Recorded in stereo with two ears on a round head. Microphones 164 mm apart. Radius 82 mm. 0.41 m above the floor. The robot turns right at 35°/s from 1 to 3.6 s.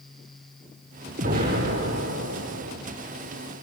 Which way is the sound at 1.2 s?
135° right.